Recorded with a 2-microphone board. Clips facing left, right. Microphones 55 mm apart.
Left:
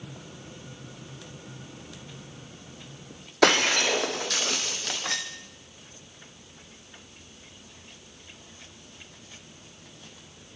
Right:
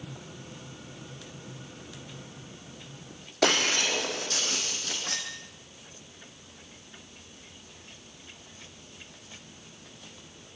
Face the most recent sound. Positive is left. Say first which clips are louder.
# left 4 dB
turn(degrees=80)